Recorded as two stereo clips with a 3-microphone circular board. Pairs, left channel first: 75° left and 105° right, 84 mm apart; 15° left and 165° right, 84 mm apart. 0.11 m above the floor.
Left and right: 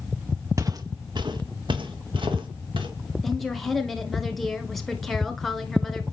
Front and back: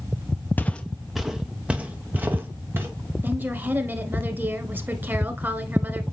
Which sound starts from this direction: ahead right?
Footsteps, at 0.6 s.